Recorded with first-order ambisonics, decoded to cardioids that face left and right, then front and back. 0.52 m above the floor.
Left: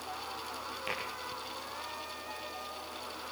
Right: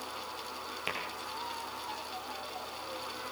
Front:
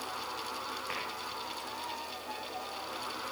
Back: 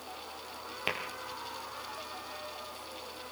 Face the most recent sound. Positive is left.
turn(degrees=-165)